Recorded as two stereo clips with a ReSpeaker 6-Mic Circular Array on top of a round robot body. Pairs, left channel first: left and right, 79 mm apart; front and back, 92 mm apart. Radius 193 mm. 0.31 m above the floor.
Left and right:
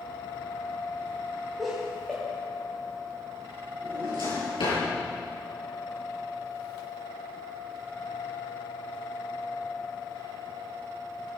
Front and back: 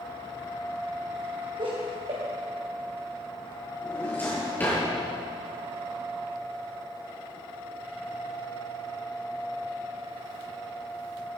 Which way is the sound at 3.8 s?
70° left.